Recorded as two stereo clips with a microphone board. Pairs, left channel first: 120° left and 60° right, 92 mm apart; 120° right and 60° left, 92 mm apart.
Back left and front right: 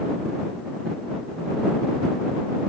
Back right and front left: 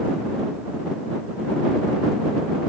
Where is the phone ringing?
I don't hear a phone ringing.